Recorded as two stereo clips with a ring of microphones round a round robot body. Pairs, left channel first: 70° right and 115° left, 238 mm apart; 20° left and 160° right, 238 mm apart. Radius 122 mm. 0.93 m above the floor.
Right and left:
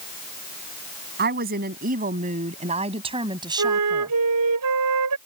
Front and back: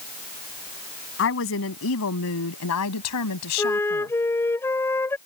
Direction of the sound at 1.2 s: 60° left.